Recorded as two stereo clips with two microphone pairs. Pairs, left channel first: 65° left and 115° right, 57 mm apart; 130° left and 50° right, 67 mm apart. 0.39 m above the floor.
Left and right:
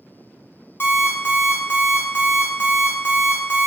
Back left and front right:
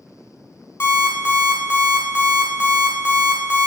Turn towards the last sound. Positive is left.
turn(degrees=95)